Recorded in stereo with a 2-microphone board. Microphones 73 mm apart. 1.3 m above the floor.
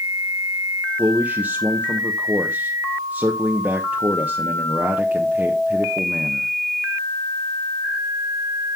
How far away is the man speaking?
About 1.0 m.